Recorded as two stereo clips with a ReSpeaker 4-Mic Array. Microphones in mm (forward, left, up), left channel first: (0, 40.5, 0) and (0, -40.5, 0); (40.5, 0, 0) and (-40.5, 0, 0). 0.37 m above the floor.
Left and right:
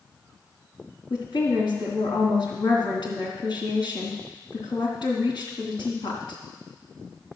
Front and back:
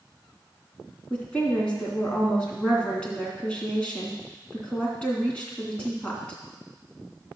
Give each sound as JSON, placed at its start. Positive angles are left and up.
{"t": 1.1, "sound": "a woman speaking", "azimuth_deg": 75, "distance_m": 3.0}